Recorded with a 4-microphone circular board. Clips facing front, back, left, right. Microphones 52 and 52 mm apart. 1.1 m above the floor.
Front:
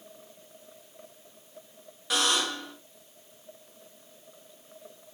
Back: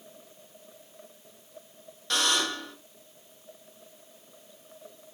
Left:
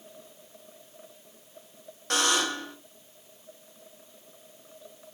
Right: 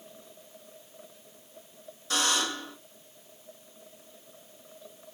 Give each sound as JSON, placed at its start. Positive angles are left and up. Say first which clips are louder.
{"t": 2.1, "sound": "a buzzer", "louder": "even, left 2 dB", "azimuth_deg": 85, "distance_m": 1.5}